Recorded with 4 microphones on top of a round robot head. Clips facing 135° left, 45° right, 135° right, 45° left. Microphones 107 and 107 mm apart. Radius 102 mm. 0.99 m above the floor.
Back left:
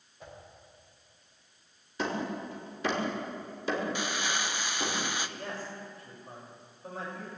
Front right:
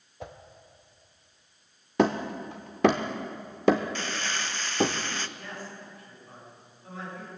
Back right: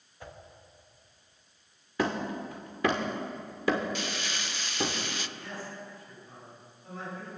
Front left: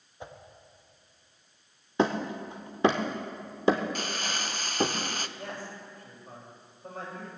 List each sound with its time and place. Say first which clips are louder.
0.2 s a whoosh: front right 7 dB, front left 3 dB; 25° right, 1.3 m
2.0 s hammering: front right 8 dB, front left 3 dB; 20° right, 0.7 m
4.0 s crumpling: even, front left 2 dB; 65° left, 0.7 m
5.4 s a man speaking: back left 2 dB, front left 1 dB; 85° left, 6.5 m